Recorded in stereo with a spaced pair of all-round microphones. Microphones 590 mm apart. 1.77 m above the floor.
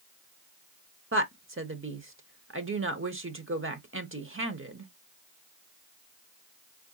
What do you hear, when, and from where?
1.1 s a woman speaking: 20° right (ahead or behind), 0.7 m